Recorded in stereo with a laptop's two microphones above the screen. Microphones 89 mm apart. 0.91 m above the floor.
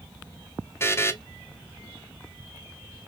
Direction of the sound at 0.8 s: 25° left (ahead or behind).